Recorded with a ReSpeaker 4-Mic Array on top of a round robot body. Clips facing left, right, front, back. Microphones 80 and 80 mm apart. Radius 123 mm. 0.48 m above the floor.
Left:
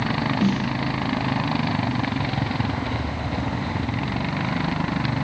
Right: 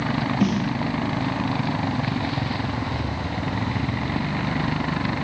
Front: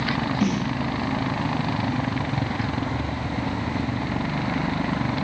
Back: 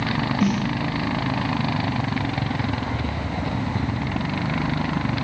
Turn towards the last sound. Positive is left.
turn(degrees=-90)